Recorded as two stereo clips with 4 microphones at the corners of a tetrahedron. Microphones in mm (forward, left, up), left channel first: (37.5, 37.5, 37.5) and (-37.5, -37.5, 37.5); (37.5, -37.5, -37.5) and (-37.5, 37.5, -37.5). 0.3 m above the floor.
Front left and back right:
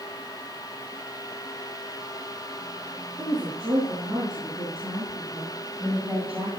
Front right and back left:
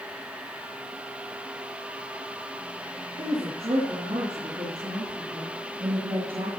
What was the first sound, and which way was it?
A woman speaking, 140° left.